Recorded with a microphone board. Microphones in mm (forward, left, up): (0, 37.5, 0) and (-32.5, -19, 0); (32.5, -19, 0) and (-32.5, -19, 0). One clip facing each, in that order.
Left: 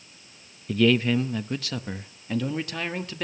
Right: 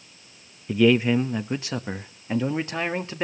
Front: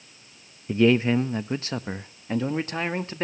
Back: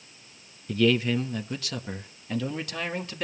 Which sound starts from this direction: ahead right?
A man speaking, at 0.7 s.